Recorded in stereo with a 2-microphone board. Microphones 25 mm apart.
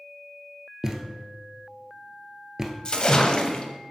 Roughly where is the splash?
Left.